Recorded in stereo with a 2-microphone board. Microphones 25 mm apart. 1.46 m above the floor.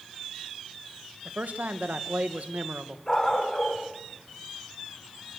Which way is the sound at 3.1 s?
15° left (ahead or behind).